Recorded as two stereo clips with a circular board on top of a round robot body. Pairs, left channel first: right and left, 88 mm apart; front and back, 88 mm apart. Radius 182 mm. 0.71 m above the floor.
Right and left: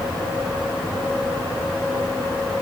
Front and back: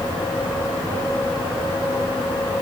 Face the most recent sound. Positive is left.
No sound to turn to.